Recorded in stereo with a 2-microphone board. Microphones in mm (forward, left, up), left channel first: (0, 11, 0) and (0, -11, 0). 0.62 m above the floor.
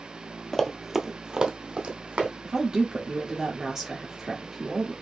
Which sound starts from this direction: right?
A woman speaking, at 2.4 s.